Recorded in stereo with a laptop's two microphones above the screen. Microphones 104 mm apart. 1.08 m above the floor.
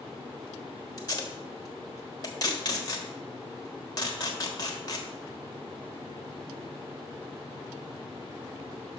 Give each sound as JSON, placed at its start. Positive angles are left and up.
{"t": 1.0, "sound": "tape being pulled", "side_deg": 40, "distance_m": 1.3}